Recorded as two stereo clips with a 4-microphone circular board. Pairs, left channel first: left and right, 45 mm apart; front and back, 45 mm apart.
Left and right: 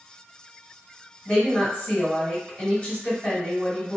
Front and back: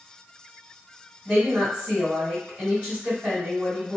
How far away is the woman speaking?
About 1.8 m.